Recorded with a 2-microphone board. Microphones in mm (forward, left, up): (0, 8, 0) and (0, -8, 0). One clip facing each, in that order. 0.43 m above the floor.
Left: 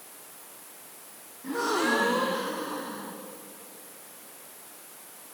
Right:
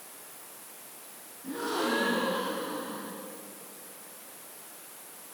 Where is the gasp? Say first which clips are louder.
Left 4 dB; 80° left, 4 m.